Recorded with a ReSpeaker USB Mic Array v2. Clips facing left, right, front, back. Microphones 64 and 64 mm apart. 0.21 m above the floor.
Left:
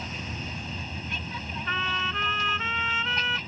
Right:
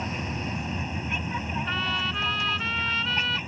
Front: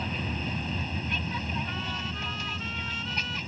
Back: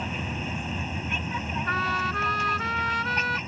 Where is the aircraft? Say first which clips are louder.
Right 5 dB, back 1 dB; 120° right; by 3.5 s 150° right.